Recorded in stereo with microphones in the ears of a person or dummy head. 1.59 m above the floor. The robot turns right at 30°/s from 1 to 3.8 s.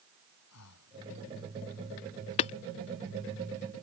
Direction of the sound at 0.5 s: 80° left.